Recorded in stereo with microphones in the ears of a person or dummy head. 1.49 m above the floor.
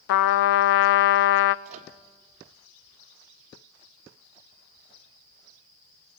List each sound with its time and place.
0.1 s a trumpet: 60° left (ahead or behind), 0.6 m
1.6 s a microwave: 35° right (ahead or behind), 1.2 m